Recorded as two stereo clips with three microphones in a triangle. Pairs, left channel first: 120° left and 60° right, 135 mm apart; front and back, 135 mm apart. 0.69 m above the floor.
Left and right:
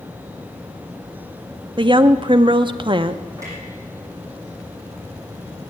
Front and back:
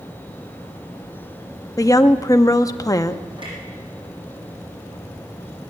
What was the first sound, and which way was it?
A woman speaking, 45° right.